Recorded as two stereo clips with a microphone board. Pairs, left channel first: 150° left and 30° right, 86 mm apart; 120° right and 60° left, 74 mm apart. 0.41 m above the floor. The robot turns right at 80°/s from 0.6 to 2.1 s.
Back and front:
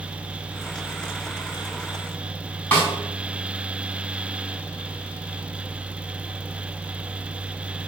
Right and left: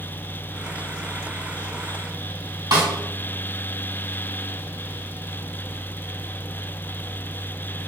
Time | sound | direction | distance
2.7 | a snare drum | 80° left | 4.5 m